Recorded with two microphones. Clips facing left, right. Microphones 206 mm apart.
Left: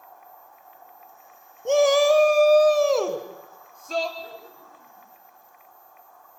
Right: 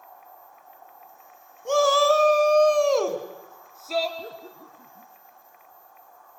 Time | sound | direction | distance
1.6 | a shout | 20° left (ahead or behind) | 1.3 m
4.2 | laughter | 45° right (ahead or behind) | 2.5 m